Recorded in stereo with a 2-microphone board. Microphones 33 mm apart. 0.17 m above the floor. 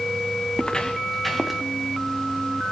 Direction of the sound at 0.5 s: 35° left (ahead or behind).